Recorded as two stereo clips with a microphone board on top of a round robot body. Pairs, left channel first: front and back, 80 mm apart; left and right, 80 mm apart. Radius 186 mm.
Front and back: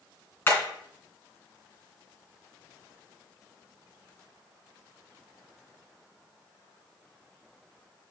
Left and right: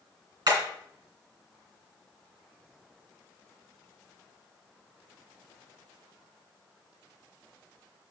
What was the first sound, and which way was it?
Hammering, 55° right.